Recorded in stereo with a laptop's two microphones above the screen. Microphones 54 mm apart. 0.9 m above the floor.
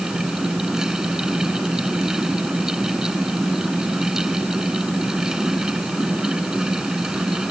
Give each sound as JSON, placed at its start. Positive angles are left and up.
{"t": 0.0, "sound": "a fan", "side_deg": -10}